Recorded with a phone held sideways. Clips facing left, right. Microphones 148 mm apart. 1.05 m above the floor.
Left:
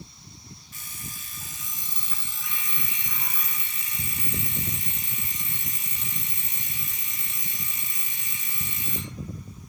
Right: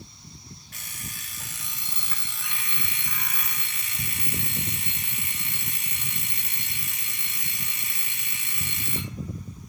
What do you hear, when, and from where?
0.7 s an alarm clock: 70° right (ahead or behind), 1.6 m